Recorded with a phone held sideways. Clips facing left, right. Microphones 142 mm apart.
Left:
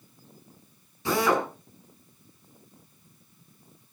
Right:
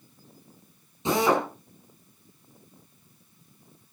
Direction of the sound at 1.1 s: 20° right (ahead or behind).